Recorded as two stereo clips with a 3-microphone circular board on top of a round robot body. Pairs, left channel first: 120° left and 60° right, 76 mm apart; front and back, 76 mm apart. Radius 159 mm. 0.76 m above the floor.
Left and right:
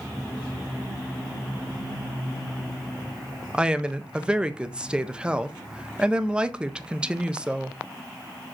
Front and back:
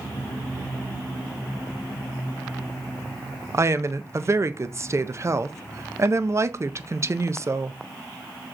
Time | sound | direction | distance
3.5 | a woman speaking | 135° right | 0.6 m